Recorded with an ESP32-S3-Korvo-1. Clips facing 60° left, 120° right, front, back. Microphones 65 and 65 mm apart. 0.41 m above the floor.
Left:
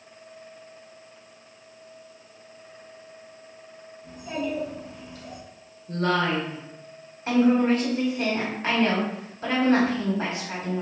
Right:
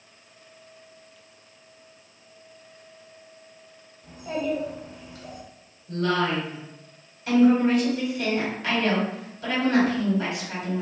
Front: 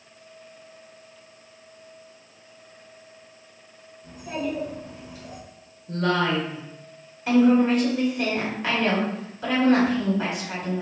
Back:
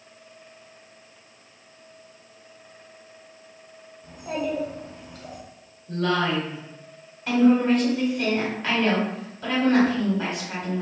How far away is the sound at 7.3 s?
About 1.7 m.